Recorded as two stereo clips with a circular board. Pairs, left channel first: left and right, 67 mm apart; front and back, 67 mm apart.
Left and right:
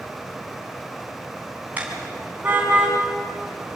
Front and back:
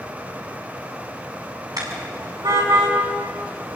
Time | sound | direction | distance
1.8 | a car horn | 155° right | 5.5 m